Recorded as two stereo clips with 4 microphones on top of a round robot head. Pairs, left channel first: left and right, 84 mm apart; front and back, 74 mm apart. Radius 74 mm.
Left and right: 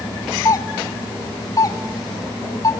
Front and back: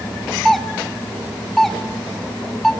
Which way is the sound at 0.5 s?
85° left.